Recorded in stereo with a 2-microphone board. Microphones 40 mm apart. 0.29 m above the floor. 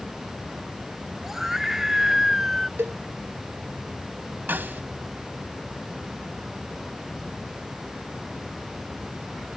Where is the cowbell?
75° right (ahead or behind).